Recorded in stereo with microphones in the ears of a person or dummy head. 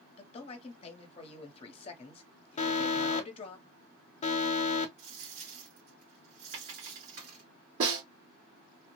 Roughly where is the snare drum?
Right.